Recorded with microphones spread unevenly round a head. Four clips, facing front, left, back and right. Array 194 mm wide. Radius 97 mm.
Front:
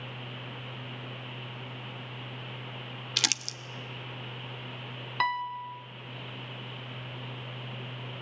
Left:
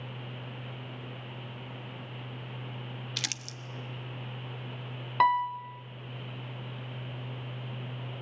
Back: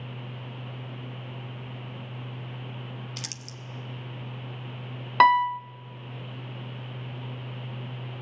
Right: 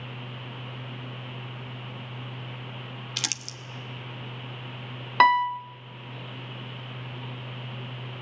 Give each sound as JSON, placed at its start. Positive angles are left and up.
{"t": 3.2, "sound": "crumpling", "azimuth_deg": -20, "distance_m": 1.0}
{"t": 5.2, "sound": "a piano", "azimuth_deg": -110, "distance_m": 0.5}